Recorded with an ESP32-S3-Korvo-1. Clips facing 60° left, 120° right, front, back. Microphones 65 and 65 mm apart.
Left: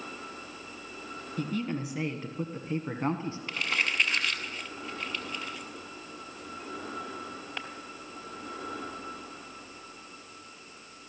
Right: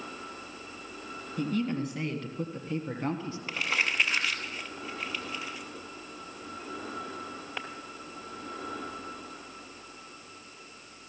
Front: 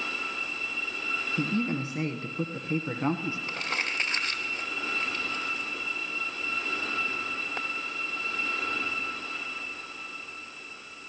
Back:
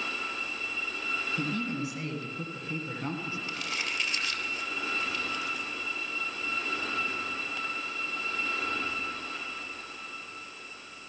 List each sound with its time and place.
1.4 s a man speaking: 30° right, 1.5 m; by 3.4 s 35° left, 1.4 m
3.5 s crumpling: 35° right, 2.0 m